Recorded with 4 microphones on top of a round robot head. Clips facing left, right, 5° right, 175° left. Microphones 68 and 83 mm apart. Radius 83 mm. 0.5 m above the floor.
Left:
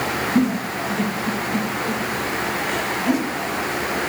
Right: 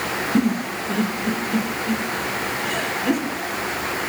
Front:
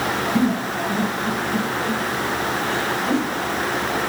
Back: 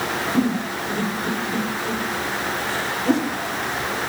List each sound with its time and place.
0.3 s a giggle: 120° right, 3 m